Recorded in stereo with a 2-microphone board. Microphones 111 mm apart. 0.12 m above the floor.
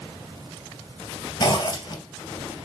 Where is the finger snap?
No finger snap in this recording.